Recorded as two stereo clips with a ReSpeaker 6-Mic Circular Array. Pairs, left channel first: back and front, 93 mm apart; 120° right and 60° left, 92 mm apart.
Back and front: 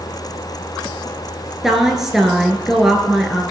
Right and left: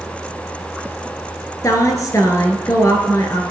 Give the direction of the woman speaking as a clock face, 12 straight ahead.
3 o'clock.